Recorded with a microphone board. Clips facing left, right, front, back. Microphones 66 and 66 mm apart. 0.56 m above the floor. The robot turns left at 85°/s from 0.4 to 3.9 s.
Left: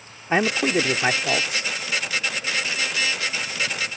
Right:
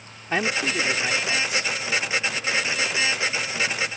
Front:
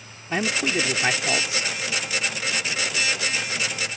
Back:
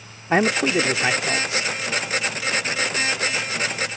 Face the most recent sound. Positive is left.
turn(degrees=-145)